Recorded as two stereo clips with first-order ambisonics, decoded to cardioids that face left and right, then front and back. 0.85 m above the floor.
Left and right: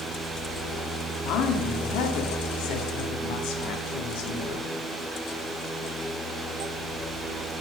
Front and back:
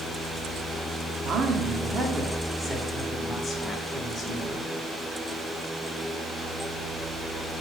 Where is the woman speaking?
125° left, 1.4 m; by 4.7 s 70° left, 2.5 m.